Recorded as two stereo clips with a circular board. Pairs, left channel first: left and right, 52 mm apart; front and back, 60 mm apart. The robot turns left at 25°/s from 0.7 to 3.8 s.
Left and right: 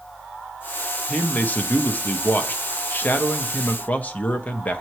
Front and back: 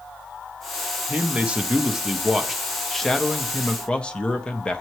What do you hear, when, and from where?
1.1 s a man speaking: 130° left, 0.8 m; by 4.8 s 60° left, 0.8 m